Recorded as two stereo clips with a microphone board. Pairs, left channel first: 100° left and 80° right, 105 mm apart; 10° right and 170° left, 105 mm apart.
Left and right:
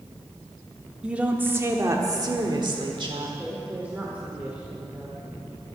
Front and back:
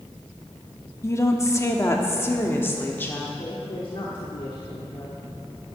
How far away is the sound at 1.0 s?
About 1.1 m.